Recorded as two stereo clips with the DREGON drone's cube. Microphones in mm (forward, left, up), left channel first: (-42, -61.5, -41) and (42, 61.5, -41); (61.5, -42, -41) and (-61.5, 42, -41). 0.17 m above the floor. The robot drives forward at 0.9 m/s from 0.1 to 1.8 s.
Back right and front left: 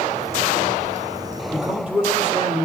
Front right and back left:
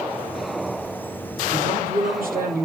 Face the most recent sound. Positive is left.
turn(degrees=140)